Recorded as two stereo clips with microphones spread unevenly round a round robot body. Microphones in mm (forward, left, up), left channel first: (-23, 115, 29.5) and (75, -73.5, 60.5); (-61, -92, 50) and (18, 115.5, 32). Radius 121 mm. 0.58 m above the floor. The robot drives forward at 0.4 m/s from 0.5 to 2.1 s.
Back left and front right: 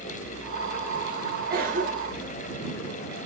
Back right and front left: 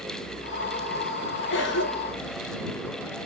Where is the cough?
100° right, 0.9 m; by 2.3 s 120° right, 0.9 m.